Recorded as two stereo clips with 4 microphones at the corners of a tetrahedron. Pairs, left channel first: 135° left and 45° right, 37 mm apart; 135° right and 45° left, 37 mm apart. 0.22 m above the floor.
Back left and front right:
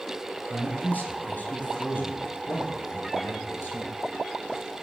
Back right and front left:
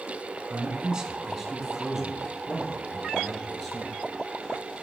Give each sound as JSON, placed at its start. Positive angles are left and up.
{"t": 0.5, "sound": "a man speaking", "azimuth_deg": 105, "distance_m": 1.8}